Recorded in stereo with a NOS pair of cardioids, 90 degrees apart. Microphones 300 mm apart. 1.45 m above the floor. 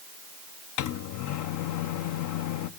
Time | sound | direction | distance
0.8 | a microwave | 70° left | 0.8 m